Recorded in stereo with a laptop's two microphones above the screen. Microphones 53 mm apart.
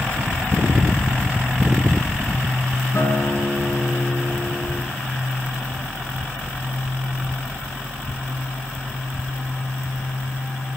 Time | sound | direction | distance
2.9 | a guitar | 50° left (ahead or behind) | 4 m